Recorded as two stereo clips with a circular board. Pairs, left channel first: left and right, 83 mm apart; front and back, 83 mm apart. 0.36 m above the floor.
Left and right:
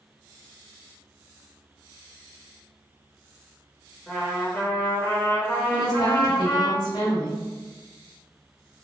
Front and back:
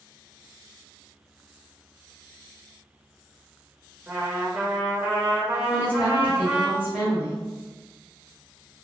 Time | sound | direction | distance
4.1 | a trumpet | 130° left | 1.0 m
5.7 | a woman speaking | 115° left | 1.9 m